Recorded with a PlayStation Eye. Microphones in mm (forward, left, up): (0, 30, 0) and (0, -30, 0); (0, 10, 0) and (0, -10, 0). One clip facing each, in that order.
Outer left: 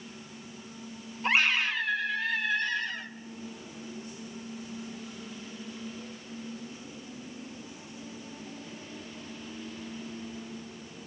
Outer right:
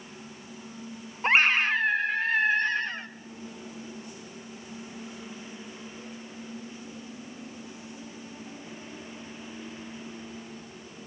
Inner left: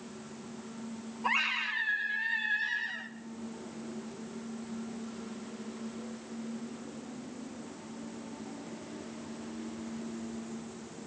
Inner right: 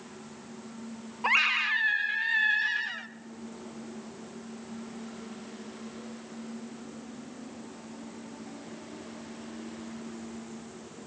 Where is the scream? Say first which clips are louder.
Outer right 4 dB, inner right 6 dB; 40° right (ahead or behind), 1.4 m.